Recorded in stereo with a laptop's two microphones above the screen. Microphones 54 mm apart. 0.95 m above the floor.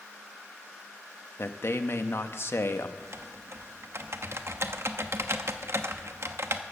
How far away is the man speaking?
About 0.8 m.